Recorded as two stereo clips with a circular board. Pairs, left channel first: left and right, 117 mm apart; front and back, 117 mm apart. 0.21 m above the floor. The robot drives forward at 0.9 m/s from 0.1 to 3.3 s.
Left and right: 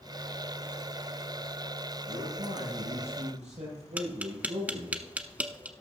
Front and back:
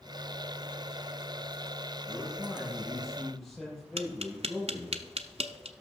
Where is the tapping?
165° right, 0.8 m.